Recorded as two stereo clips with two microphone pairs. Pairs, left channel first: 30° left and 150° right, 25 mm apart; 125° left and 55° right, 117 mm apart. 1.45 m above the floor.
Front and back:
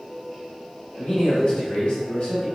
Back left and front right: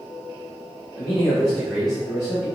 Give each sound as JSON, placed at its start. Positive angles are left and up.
{"t": 1.0, "sound": "a man speaking", "azimuth_deg": 40, "distance_m": 1.7}